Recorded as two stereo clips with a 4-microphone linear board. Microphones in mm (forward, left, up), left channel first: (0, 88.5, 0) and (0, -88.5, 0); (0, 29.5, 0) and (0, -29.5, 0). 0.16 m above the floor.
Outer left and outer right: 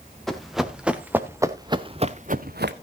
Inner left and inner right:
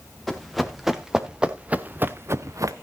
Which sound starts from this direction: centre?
Running footsteps, at 0.3 s.